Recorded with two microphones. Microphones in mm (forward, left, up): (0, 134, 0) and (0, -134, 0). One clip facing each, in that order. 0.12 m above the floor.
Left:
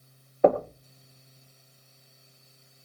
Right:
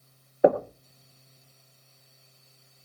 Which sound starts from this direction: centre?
Knocking, at 0.4 s.